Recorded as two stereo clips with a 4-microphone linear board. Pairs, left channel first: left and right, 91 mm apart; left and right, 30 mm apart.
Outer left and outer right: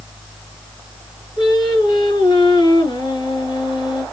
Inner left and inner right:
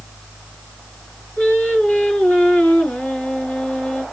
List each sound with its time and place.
1.4 s singing: 65° left (ahead or behind), 4 m